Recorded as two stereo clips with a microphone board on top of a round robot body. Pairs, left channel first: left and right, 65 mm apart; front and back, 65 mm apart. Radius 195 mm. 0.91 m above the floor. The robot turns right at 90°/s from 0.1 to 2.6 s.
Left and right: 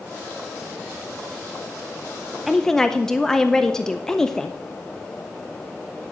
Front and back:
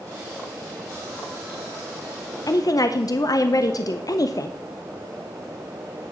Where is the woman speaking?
5° right, 0.8 m; by 4.5 s 10° left, 0.8 m.